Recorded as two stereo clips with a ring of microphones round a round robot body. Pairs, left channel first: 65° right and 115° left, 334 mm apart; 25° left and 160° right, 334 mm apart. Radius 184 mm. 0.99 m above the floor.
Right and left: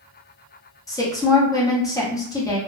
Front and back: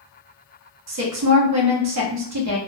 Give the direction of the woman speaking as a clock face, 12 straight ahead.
5 o'clock.